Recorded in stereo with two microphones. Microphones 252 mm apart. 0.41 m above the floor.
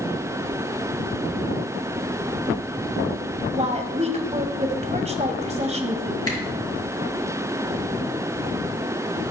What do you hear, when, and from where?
3.5 s a woman speaking: 25° right (ahead or behind), 2.0 m
6.3 s a camera shutter: 60° left (ahead or behind), 5 m